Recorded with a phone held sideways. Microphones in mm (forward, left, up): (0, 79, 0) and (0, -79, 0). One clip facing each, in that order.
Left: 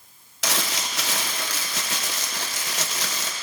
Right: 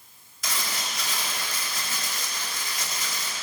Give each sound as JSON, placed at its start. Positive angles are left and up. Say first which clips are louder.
{"t": 0.4, "sound": "crumpling", "louder": "left 5 dB", "side_deg": 85, "distance_m": 0.8}